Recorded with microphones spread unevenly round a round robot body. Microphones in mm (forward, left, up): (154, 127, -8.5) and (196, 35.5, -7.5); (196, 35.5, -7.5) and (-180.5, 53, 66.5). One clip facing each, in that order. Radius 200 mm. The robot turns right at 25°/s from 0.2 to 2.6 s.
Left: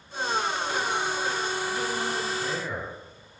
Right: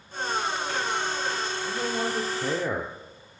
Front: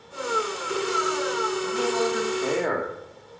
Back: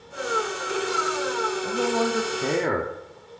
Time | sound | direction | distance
1.6 | a man speaking | 140° right | 1.4 m